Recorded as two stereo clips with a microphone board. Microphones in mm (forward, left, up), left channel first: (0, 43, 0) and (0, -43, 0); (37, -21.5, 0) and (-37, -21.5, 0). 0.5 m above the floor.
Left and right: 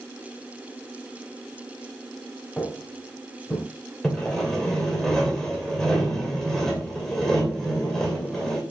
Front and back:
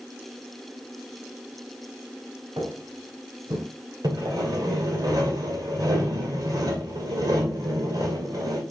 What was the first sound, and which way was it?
Footsteps, 165° left.